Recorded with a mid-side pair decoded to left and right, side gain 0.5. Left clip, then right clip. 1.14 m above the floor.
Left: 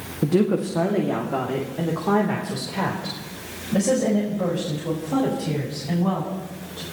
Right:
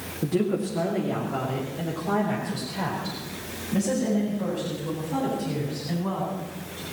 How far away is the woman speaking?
About 1.7 m.